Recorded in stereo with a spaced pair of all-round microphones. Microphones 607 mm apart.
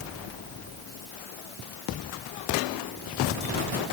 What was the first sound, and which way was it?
Only background noise.